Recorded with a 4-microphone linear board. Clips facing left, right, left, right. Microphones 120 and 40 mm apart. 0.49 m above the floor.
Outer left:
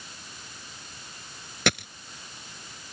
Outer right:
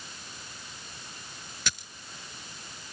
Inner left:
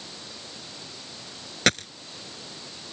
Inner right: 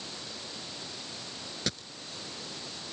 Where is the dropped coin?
70° left (ahead or behind).